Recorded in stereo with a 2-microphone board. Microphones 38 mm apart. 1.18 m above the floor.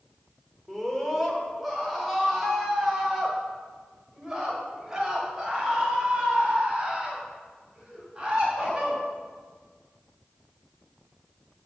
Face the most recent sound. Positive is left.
turn(degrees=-15)  # may be behind; listen again after turning